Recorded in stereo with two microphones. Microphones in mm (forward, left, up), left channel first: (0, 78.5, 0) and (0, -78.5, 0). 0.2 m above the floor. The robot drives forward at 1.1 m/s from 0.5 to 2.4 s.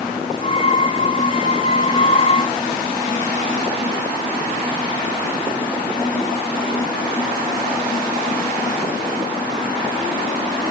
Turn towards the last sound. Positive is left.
No sound to turn to.